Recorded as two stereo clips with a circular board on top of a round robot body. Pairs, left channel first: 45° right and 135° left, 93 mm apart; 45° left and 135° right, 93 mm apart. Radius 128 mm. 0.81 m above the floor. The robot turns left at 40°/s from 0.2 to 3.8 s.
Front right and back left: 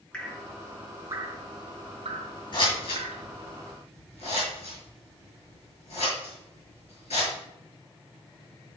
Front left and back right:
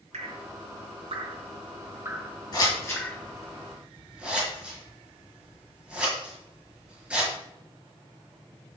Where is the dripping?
125° right, 1.2 m; by 3.3 s 110° left, 1.2 m.